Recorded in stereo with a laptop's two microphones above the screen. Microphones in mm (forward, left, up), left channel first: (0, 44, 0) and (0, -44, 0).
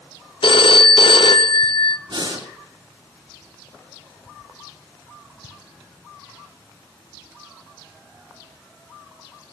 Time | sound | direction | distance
0.4 | a phone ringing | 75° left (ahead or behind) | 0.8 m
2.1 | breathing | 70° right (ahead or behind) | 3 m